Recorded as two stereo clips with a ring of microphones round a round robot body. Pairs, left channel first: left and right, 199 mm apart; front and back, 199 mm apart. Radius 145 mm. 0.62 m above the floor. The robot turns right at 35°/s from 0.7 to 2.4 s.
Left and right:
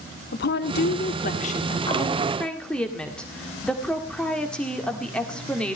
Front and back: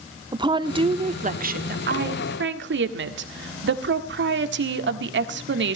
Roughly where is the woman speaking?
Behind left.